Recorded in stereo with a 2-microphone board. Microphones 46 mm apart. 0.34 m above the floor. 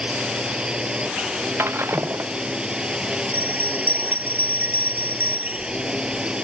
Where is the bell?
45° right (ahead or behind).